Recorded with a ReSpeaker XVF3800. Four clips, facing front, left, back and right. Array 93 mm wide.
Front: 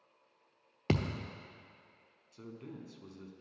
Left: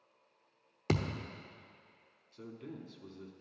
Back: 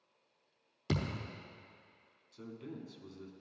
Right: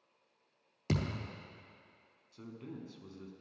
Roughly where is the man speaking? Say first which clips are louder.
Even, back 1 dB; ahead right.